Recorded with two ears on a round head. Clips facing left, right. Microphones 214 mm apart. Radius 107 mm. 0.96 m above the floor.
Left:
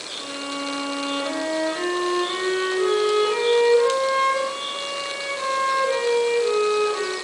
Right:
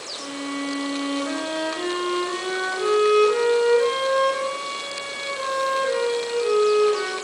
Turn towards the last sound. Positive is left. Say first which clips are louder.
# right 2 dB
turn(degrees=-20)  # may be behind; listen again after turning